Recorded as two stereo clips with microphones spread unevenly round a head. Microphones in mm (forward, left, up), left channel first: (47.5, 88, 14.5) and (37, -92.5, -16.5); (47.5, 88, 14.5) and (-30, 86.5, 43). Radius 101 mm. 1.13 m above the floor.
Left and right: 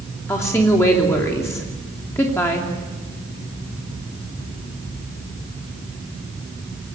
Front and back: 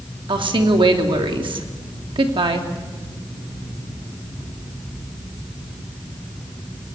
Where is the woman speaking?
165° left, 3 m.